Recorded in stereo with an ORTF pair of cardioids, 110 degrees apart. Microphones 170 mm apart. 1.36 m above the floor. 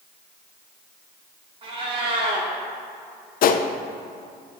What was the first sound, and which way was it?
A cat meowing, 35° right.